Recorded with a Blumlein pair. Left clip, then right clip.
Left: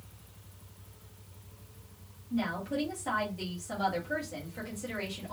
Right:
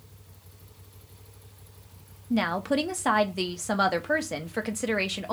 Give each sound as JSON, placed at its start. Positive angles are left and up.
{"t": 2.3, "sound": "a woman speaking", "azimuth_deg": -45, "distance_m": 1.0}